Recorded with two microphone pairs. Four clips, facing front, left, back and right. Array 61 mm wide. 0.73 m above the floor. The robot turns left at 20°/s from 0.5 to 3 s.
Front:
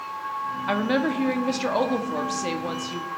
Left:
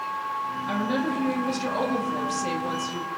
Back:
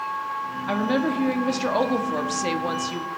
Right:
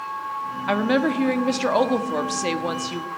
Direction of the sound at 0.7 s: 80° right.